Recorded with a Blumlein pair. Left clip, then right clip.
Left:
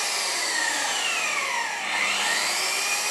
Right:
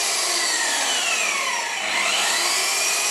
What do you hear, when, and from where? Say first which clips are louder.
0.0 s an engine running: right 4 dB; 30° right, 0.7 m